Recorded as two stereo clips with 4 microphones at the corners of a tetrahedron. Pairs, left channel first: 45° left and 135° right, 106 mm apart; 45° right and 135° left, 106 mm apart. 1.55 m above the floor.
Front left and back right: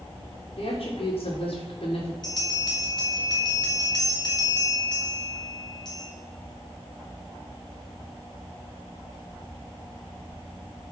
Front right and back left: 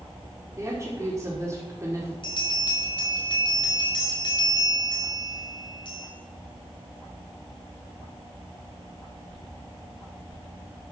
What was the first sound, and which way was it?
A woman speaking, 75° left.